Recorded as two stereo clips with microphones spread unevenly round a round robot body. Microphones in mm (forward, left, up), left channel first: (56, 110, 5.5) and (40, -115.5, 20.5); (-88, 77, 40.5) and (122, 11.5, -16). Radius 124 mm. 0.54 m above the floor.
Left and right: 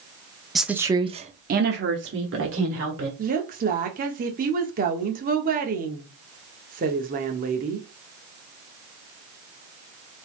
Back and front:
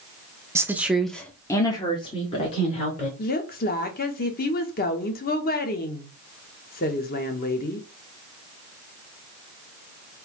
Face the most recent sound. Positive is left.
turn(degrees=-140)